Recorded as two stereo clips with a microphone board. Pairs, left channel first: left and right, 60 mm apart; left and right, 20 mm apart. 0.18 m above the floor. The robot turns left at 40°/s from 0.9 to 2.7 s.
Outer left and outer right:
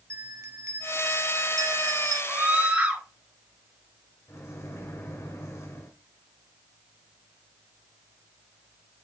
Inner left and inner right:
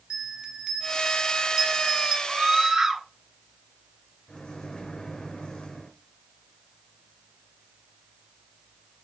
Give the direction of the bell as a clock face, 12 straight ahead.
2 o'clock.